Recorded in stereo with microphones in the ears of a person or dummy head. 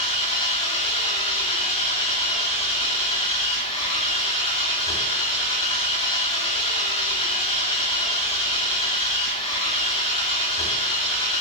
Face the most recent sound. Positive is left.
turn(degrees=25)  # may be behind; listen again after turning